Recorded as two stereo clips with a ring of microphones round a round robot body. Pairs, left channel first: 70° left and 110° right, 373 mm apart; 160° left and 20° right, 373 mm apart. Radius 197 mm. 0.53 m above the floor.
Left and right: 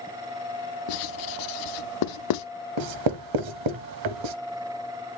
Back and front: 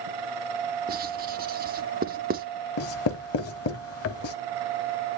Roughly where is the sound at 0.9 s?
Ahead left.